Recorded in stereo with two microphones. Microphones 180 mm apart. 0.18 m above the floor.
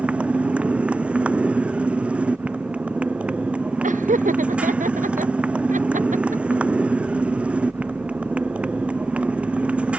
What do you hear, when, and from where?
0.0 s a motorcycle: 5° right (ahead or behind)
3.8 s laughter: 45° right (ahead or behind)